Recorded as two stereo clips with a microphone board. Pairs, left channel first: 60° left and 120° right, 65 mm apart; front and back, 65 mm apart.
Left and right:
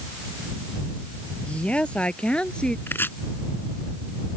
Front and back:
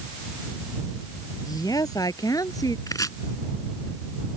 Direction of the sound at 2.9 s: 10° left.